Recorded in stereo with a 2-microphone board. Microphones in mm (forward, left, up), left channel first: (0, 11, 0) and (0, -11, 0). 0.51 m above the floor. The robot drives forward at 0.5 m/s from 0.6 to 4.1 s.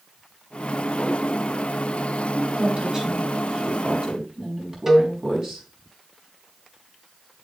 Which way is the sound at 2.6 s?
35° right (ahead or behind).